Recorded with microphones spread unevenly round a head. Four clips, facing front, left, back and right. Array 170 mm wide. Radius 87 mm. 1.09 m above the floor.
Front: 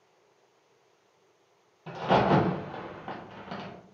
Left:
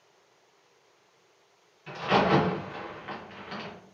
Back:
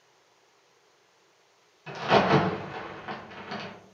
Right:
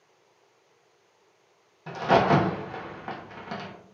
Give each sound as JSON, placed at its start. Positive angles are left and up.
{"t": 1.9, "sound": "a crack", "azimuth_deg": -65, "distance_m": 1.2}